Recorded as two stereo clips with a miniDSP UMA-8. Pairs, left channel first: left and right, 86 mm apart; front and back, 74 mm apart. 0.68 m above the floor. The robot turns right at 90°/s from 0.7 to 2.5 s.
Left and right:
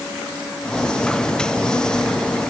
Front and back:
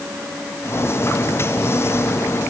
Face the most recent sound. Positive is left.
No sound to turn to.